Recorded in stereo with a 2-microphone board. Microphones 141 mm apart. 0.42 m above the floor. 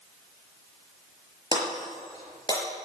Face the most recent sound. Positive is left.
turn(degrees=30)  # may be behind; listen again after turning